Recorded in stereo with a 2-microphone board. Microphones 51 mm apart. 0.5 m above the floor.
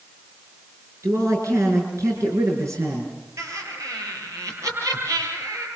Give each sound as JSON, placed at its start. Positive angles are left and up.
{"t": 1.0, "sound": "a man speaking", "side_deg": -75, "distance_m": 6.0}
{"t": 3.4, "sound": "laughter", "side_deg": -85, "distance_m": 9.5}